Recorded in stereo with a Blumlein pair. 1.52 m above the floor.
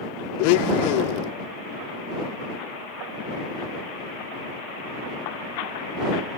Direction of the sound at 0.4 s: 45° left.